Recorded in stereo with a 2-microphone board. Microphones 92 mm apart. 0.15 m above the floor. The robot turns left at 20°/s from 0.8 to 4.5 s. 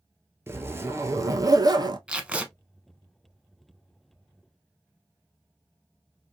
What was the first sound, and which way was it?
A zipper, 25° right (ahead or behind).